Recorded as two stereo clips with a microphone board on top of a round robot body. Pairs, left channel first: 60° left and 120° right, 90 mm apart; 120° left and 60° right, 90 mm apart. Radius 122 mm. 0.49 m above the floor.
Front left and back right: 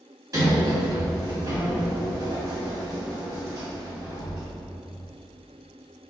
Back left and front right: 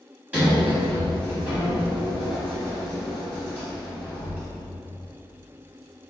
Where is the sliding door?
125° right, 1.7 m.